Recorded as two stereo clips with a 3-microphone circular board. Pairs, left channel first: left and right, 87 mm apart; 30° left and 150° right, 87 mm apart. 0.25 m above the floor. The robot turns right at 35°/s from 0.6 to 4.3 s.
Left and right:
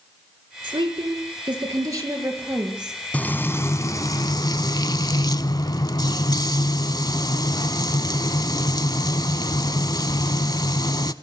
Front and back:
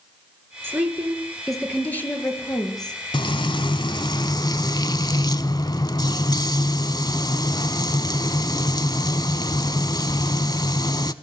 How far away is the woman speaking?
About 5 m.